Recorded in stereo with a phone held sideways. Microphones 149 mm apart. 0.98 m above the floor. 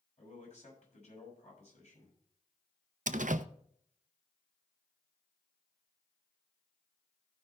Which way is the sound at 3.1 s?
65° right (ahead or behind).